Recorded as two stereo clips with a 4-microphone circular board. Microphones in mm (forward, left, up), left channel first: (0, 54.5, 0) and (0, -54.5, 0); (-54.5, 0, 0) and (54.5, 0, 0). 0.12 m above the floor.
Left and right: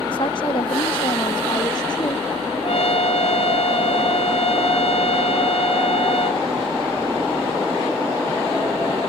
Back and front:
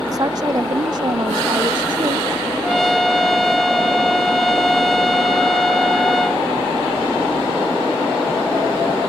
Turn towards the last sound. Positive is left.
turn(degrees=90)